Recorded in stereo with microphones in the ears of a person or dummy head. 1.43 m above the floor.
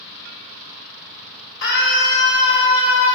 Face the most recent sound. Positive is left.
turn(degrees=65)  # may be behind; listen again after turning